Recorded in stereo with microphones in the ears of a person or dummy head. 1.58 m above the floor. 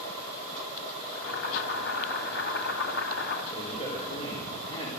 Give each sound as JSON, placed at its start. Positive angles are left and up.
{"t": 1.1, "sound": "boiling", "side_deg": 65, "distance_m": 3.0}
{"t": 3.5, "sound": "a man speaking", "side_deg": 35, "distance_m": 4.5}